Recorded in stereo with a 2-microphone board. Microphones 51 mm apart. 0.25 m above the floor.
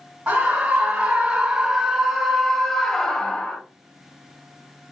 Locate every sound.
0.3 s a scream: 30° right (ahead or behind), 1.9 m; by 3.6 s 20° left (ahead or behind), 1.2 m